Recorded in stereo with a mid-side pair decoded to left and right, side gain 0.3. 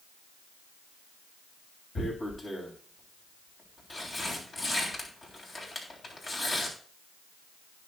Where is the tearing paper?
55° left, 3.5 m.